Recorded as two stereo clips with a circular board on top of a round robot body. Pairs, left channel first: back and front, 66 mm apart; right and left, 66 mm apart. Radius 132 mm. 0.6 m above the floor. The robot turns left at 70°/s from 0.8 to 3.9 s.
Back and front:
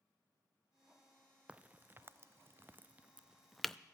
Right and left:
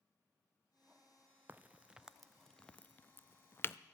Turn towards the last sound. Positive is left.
turn(degrees=-115)